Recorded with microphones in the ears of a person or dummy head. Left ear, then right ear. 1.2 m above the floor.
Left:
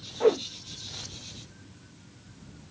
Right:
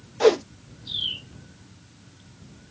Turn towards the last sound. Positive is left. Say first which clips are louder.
# right 5 dB
turn(degrees=-65)  # may be behind; listen again after turning